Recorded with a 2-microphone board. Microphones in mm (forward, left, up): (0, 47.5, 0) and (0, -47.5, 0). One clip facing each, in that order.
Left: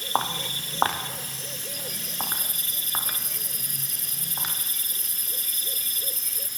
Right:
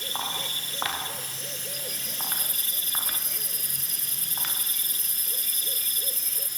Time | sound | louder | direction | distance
0.1 | footsteps | left 8 dB | 50° left (ahead or behind) | 4.5 m